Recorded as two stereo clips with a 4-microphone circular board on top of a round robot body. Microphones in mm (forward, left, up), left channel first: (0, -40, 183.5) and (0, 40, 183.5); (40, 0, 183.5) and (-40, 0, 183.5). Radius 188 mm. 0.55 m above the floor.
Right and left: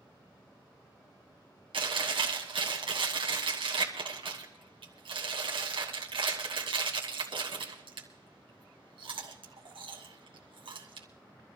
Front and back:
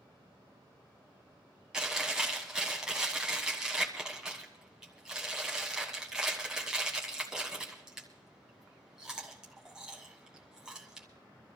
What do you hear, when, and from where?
1.7 s chewing: 100° left, 1.7 m